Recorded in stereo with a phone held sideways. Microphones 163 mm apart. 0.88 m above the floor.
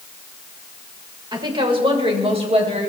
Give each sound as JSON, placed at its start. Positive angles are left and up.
{"t": 1.3, "sound": "a woman speaking", "side_deg": -25, "distance_m": 3.0}